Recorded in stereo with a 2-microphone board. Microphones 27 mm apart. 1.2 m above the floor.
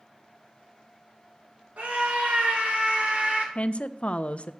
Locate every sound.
1.8 s a scream: 80° right, 4 m; by 3.5 s 70° right (ahead or behind), 4 m
3.5 s a woman speaking: 50° left (ahead or behind), 0.5 m